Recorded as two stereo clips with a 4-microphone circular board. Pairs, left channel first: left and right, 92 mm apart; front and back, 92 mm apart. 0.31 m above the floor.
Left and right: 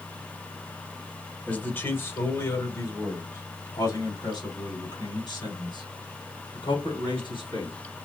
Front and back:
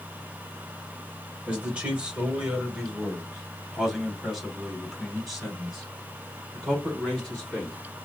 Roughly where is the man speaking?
Behind left.